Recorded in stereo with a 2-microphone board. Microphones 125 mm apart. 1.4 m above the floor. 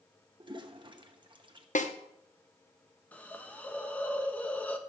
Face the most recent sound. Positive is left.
turn(degrees=10)  # may be behind; listen again after turning